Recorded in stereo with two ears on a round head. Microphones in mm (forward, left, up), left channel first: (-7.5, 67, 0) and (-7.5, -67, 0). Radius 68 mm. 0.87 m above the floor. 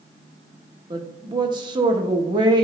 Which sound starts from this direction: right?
A woman speaking, at 0.9 s.